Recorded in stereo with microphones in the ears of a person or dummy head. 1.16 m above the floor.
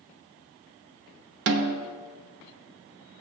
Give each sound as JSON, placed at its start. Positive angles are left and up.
{"t": 1.5, "sound": "a snare drum", "side_deg": -65, "distance_m": 0.7}